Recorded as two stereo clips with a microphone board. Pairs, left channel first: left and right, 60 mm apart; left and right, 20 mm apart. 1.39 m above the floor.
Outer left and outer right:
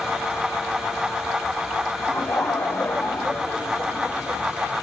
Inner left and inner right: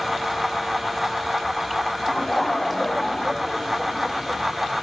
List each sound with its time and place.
2.1 s laughter: 50° left (ahead or behind), 3 m